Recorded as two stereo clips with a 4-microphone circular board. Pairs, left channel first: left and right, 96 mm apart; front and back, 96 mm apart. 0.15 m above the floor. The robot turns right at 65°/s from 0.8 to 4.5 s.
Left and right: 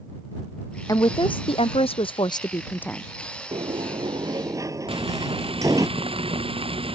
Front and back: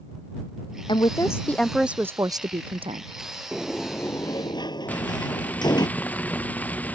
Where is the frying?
75° right.